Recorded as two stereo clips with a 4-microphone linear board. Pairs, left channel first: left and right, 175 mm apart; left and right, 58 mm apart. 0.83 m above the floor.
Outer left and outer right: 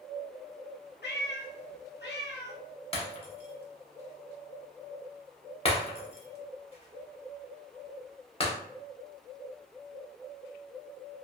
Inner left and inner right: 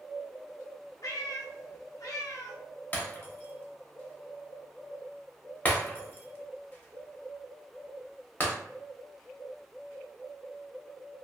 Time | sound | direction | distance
1.0 | a cat meowing | 65° left (ahead or behind) | 0.5 m
2.9 | breaking glass | 30° left (ahead or behind) | 0.6 m